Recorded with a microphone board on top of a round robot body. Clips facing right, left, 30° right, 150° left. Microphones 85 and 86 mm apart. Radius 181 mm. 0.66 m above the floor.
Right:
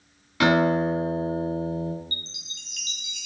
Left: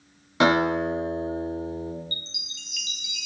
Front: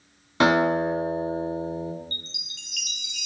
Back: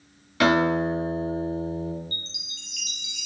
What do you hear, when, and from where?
0.4 s a guitar: 30° left, 3 m
2.1 s a chime: 40° right, 1.0 m